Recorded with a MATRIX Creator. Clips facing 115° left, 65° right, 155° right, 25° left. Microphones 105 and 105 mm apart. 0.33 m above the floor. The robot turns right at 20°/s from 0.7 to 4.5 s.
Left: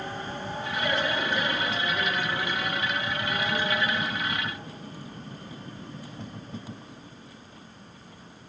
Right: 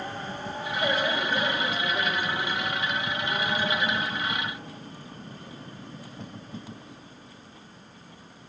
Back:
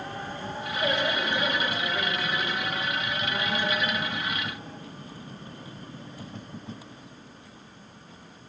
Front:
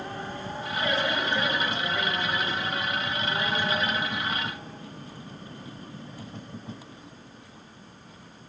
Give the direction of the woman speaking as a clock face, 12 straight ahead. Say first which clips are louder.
Right 1 dB, even; 3 o'clock.